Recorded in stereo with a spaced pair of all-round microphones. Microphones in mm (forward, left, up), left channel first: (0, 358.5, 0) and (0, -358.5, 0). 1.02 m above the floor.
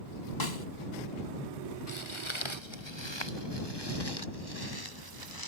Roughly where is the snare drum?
Left.